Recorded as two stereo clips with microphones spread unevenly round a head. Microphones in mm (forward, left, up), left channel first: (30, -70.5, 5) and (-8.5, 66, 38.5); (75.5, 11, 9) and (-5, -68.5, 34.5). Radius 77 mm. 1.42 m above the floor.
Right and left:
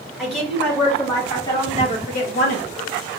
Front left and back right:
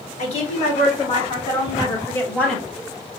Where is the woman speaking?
15° left, 1.9 m; by 2.6 s 40° right, 1.4 m.